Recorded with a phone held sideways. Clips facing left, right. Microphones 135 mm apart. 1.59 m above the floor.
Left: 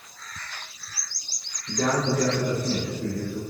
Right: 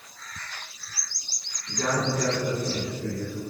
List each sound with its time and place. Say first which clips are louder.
1.7 s a man speaking: left 3 dB; 50° left (ahead or behind), 1.4 m